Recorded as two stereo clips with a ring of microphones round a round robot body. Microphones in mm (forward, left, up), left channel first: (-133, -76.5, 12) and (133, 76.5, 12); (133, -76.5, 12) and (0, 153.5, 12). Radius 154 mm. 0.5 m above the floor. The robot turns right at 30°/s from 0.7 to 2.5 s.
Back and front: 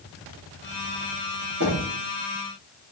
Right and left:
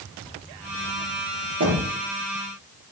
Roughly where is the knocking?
Left.